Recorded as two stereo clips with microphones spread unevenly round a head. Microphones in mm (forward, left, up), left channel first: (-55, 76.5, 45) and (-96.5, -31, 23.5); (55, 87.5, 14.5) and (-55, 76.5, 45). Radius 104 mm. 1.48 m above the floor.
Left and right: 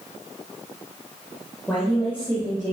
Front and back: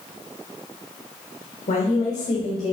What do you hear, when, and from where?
1.7 s a woman speaking: 20° right, 1.3 m; by 2.7 s 5° right, 2.5 m